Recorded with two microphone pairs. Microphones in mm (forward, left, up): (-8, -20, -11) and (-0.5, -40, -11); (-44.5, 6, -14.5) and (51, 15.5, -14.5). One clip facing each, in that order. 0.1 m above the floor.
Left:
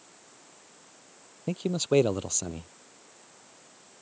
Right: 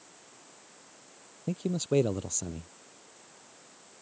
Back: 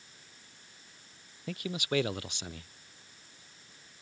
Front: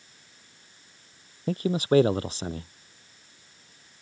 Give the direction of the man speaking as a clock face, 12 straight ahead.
10 o'clock.